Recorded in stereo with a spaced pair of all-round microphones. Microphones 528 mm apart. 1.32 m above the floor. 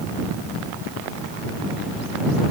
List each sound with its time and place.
Only background noise.